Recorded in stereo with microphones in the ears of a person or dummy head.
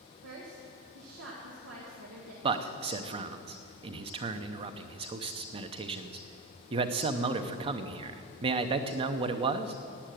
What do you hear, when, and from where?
0.2 s a woman speaking: 85° right, 1.9 m
2.4 s a man speaking: 35° right (ahead or behind), 0.7 m